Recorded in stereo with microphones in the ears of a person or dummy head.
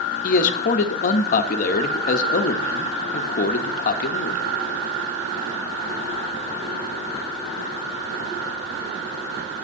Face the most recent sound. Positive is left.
turn(degrees=50)  # may be behind; listen again after turning